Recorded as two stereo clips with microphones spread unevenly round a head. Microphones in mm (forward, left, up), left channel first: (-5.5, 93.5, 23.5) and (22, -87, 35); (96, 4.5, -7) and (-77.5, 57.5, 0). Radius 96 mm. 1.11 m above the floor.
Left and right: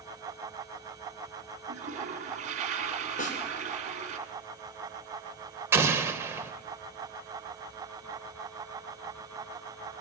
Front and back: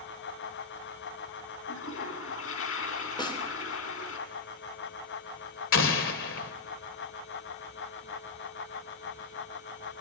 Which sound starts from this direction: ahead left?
A snare drum, at 3.2 s.